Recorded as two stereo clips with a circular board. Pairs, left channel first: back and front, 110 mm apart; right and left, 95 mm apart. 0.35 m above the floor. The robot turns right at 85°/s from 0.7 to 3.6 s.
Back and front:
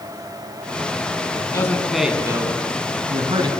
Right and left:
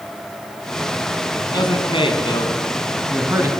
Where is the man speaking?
135° right, 4 m; by 3.5 s 40° left, 4 m.